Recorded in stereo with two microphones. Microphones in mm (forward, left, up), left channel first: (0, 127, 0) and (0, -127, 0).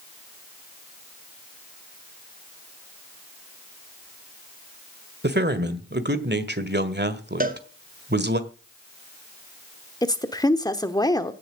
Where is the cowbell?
35° right (ahead or behind), 1.4 m.